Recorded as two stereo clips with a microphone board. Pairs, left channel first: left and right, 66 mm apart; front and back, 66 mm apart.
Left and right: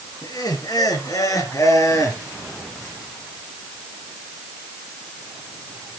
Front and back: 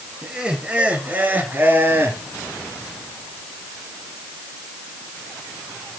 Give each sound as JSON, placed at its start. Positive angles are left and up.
{"t": 0.2, "sound": "laughter", "azimuth_deg": 100, "distance_m": 4.0}